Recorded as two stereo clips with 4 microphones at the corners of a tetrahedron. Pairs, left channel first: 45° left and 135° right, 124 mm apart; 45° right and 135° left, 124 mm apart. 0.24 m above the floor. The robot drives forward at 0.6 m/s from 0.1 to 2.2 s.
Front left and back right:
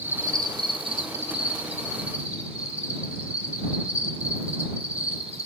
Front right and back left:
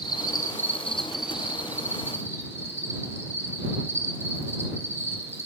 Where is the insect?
70° right, 0.7 m; by 5.5 s 155° right, 1.3 m.